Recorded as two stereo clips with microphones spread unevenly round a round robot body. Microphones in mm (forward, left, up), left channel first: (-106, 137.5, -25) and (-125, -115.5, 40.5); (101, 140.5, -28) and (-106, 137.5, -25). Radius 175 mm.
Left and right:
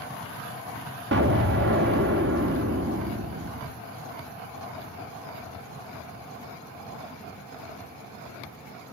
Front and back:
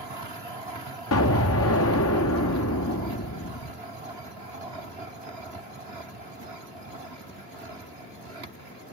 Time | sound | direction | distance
1.1 | an explosion | 30° right | 0.7 m